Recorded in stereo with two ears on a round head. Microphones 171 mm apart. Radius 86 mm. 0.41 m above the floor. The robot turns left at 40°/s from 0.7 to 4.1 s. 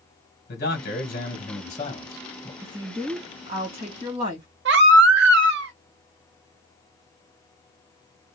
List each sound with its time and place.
0.5 s a man speaking: 95° left, 2 m; by 2.5 s 20° left, 2 m
2.6 s a woman speaking: 30° right, 1.6 m; by 4.5 s 85° right, 1.6 m
4.7 s a baby crying: 60° right (ahead or behind), 0.9 m